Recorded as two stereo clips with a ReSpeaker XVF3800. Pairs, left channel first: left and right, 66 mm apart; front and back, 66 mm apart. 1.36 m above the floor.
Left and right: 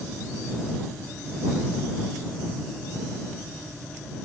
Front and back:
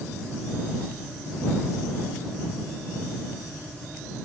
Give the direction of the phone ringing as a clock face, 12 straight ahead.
I don't hear a phone ringing.